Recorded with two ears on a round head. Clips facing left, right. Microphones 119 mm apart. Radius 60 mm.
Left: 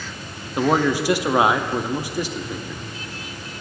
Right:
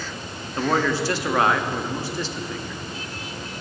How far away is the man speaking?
About 0.6 m.